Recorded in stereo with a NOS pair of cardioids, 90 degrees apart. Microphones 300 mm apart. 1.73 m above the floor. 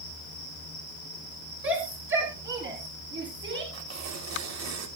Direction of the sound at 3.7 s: 65° right.